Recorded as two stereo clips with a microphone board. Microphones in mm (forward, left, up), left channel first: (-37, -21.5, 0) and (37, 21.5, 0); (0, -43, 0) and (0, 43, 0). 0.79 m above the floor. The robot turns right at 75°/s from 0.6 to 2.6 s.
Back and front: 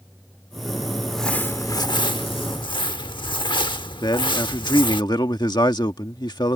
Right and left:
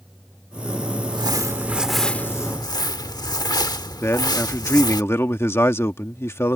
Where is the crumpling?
115° left; by 5.0 s 130° right.